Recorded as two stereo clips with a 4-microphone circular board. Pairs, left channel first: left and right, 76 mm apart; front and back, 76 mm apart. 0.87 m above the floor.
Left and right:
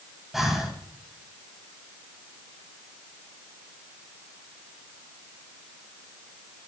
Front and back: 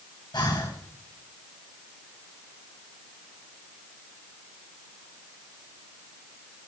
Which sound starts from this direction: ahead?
Breathing, at 0.3 s.